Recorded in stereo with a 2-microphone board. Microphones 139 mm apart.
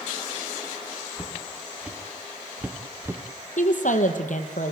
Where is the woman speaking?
65° left (ahead or behind), 2.5 m.